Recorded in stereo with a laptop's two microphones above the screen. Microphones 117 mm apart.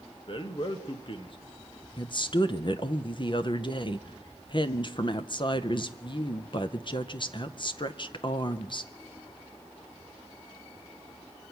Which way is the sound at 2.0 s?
45° left (ahead or behind).